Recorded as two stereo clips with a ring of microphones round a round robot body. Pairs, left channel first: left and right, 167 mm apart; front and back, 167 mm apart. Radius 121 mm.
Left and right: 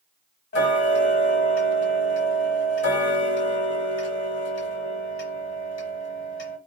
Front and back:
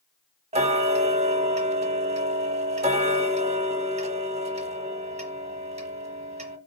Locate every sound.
0.5 s ticking: 130° left, 0.9 m